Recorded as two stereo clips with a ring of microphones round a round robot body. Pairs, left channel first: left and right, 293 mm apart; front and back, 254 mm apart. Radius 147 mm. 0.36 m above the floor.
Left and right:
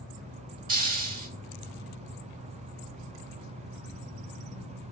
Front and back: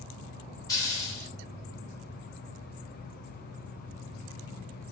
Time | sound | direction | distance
0.7 | a hiss | 65° right | 0.8 m